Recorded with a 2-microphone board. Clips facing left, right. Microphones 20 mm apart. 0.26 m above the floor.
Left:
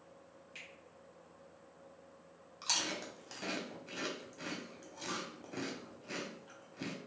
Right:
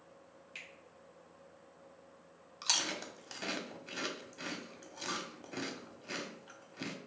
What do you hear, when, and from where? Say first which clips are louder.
0.6 s a finger snap: right 2 dB; 25° right (ahead or behind), 1.2 m
2.6 s chewing: right 2 dB; 30° right (ahead or behind), 0.6 m